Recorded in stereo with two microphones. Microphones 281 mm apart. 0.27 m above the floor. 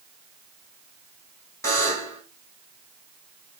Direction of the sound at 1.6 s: 10° left (ahead or behind).